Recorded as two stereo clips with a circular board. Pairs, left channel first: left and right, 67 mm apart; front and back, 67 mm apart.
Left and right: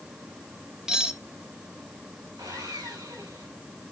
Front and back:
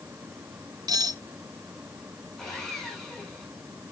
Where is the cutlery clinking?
170° right, 2.5 m.